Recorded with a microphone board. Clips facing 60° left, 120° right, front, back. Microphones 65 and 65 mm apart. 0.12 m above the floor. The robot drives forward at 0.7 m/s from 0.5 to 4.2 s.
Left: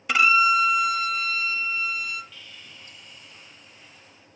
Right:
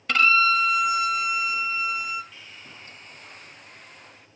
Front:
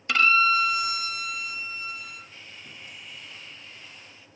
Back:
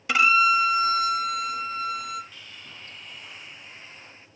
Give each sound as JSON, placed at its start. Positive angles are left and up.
{"t": 0.1, "sound": "a violin", "azimuth_deg": 120, "distance_m": 0.5}
{"t": 2.3, "sound": "sawing", "azimuth_deg": -55, "distance_m": 1.2}